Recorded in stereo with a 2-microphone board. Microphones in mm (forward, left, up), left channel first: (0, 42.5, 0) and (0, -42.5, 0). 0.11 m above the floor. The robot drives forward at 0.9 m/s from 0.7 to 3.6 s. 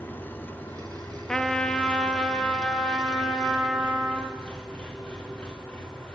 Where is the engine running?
20° left (ahead or behind), 2.5 m; by 6.2 s 10° left (ahead or behind), 5 m.